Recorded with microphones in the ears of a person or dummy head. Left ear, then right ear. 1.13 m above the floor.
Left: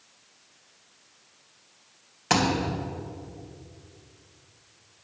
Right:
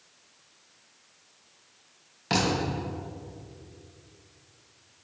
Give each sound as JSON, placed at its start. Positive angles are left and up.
{"t": 2.3, "sound": "a thud", "side_deg": 30, "distance_m": 2.0}